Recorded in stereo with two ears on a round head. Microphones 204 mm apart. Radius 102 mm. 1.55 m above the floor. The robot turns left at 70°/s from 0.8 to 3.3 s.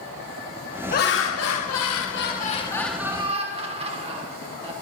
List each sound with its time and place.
0.9 s laughter: 140° left, 1.4 m; by 4.7 s 25° right, 1.4 m